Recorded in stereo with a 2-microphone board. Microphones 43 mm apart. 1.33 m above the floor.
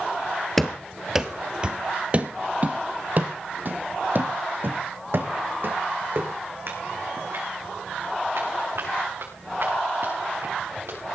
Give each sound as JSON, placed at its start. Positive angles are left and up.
{"t": 0.6, "sound": "running footsteps", "side_deg": 5, "distance_m": 1.4}